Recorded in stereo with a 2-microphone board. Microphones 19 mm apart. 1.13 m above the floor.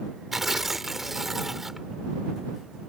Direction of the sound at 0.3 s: 10° right (ahead or behind).